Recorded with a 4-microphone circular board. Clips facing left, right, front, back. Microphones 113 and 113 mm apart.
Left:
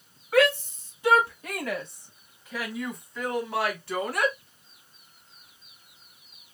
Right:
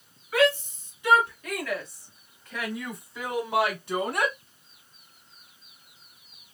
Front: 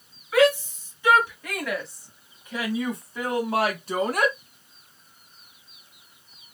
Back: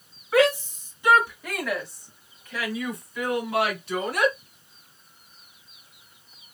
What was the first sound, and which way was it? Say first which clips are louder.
A shout: left 1 dB, front 1 dB; 120° left.